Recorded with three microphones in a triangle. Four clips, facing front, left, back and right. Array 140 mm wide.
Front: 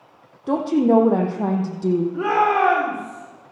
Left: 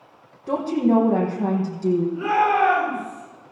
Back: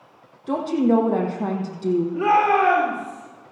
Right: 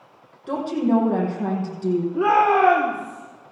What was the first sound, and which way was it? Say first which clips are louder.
A woman speaking: left 1 dB, front 2 dB; 5° left.